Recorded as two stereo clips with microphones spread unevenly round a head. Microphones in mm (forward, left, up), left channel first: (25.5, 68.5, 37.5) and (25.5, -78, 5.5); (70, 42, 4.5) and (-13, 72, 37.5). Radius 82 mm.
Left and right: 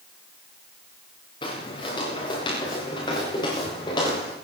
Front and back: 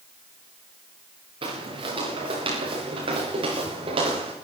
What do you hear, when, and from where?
1.4 s footsteps: 150° left, 5 m; by 4.3 s 155° left, 6.5 m